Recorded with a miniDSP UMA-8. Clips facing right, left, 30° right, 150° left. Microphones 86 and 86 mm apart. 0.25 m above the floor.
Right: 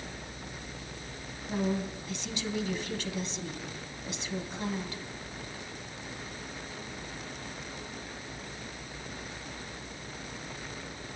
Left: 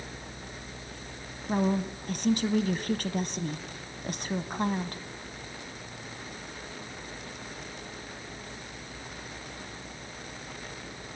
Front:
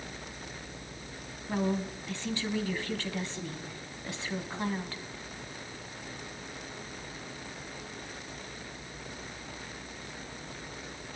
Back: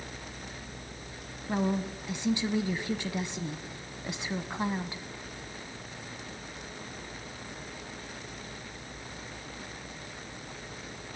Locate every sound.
1.5 s a woman speaking: 80° left, 1.8 m